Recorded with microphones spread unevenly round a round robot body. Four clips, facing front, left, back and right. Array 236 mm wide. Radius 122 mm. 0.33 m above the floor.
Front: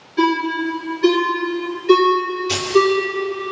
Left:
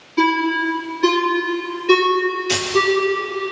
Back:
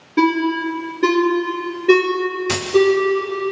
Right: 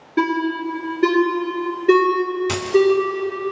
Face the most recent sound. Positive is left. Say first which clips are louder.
# right 5 dB, even
turn(degrees=-140)